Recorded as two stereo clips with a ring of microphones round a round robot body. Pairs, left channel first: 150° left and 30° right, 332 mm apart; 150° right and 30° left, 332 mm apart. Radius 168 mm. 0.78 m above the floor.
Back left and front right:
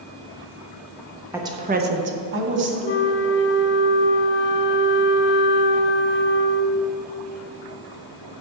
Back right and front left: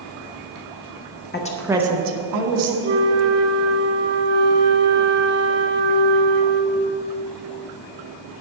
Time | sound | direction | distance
1.3 | a woman speaking | 110° right | 1.0 m
2.8 | a flute | 90° left | 0.8 m